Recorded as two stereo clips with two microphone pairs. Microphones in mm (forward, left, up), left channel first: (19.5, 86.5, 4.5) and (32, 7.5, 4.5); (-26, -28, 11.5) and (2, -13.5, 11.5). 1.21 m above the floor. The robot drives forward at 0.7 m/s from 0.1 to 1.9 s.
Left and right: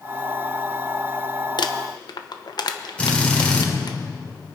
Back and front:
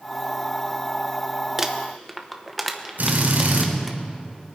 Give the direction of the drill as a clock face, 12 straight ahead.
11 o'clock.